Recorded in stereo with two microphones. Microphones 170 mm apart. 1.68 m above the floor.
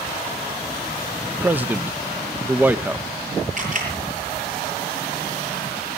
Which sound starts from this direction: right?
A camera shutter, at 3.6 s.